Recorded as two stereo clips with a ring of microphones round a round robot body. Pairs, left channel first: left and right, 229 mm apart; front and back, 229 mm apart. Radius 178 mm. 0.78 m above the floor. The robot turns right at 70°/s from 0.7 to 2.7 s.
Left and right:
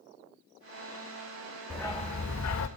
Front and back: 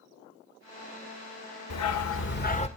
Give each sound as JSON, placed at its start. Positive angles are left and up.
{"t": 1.7, "sound": "a dog barking", "azimuth_deg": -5, "distance_m": 1.2}